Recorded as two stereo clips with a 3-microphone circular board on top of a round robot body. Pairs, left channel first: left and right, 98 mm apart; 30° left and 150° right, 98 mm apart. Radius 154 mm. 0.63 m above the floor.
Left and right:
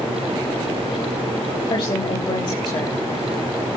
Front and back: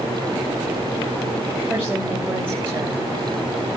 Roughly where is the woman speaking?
Behind left.